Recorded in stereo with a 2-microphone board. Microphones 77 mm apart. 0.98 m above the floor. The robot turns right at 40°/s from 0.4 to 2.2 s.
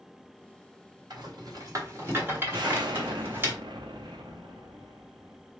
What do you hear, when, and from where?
1.1 s a rattle: 70° right (ahead or behind), 1.4 m; by 3.5 s 30° right (ahead or behind), 1.4 m
2.5 s an explosion: 70° right (ahead or behind), 0.7 m